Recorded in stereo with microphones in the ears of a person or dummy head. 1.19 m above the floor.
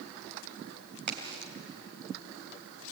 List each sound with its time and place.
1.1 s a crack: 60° right (ahead or behind), 3 m